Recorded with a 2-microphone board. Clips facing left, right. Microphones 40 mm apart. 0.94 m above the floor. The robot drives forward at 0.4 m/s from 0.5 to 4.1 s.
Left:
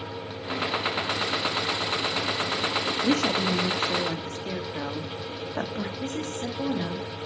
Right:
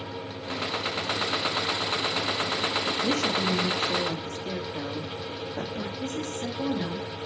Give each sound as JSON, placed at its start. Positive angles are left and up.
{"t": 3.0, "sound": "a woman speaking", "side_deg": 75, "distance_m": 1.4}
{"t": 6.0, "sound": "a woman speaking", "side_deg": 60, "distance_m": 2.5}